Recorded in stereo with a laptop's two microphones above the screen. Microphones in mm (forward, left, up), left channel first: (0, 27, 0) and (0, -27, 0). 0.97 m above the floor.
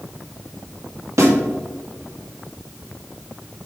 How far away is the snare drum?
About 2 m.